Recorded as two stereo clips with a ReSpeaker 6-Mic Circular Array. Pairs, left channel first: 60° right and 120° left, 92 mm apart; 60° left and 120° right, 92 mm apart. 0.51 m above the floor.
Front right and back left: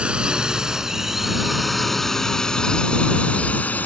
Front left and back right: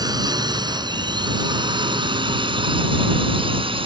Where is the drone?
160° right; by 3.9 s 130° right.